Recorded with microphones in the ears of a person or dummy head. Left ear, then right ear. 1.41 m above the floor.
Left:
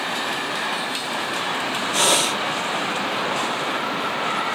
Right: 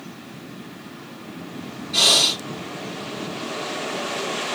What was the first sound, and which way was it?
Breathing, 50° left (ahead or behind).